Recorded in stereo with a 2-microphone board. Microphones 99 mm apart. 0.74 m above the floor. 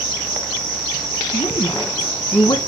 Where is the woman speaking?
45° left (ahead or behind), 1.6 m.